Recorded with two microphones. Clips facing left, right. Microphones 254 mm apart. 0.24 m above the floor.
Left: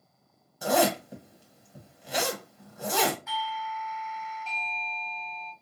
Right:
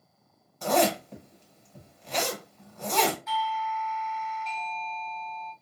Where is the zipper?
10° left (ahead or behind), 1.3 m.